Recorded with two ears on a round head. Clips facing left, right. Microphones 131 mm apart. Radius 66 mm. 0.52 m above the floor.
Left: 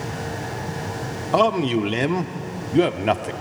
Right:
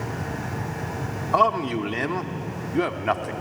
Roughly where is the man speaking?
Left.